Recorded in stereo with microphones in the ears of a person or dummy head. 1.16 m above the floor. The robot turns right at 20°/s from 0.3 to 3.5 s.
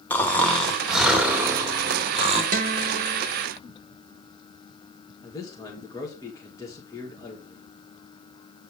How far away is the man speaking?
About 1.6 m.